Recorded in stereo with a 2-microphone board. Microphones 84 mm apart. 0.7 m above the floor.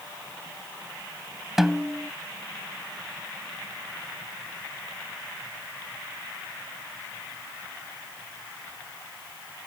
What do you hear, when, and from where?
1.6 s a snare drum: 5° right (ahead or behind)